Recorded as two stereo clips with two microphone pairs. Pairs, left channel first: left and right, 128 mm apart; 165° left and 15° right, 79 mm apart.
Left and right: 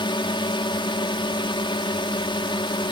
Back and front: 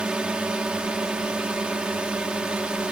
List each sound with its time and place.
0.0 s a drone: 55° left